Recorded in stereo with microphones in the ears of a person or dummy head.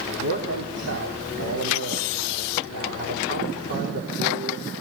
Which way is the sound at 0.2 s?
75° right (ahead or behind).